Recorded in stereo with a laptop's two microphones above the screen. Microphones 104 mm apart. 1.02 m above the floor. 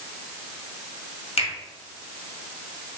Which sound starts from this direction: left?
A finger snap, at 1.4 s.